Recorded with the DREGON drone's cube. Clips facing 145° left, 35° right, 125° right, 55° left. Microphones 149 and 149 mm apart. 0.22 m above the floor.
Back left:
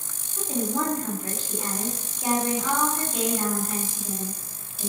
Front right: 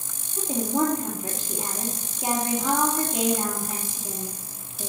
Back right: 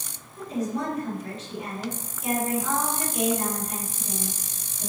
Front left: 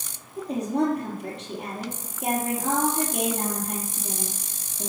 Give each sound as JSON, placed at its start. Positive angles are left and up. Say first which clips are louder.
{"t": 0.4, "sound": "a woman speaking", "louder": "front right 3 dB, front left 4 dB", "azimuth_deg": 35, "distance_m": 5.0}